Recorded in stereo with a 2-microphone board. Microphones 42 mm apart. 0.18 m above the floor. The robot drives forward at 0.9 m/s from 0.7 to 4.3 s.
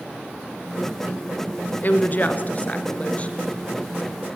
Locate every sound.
1.8 s a woman speaking: 45° left (ahead or behind), 2 m; by 3.4 s 30° left (ahead or behind), 3 m